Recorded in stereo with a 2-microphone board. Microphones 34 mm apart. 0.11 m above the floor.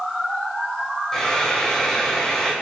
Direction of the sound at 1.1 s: 15° left (ahead or behind).